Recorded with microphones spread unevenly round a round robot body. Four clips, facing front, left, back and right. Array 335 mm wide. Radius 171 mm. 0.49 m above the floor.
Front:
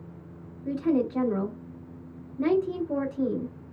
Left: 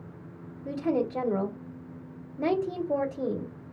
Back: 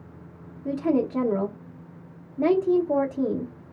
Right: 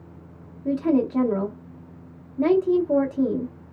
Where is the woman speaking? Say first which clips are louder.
Right 6 dB, back 2 dB; 125° right, 0.8 m.